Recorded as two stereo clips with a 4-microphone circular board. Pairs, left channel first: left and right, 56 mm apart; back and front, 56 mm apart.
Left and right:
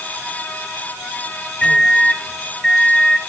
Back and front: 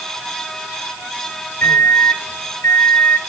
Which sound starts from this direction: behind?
A microwave, at 1.6 s.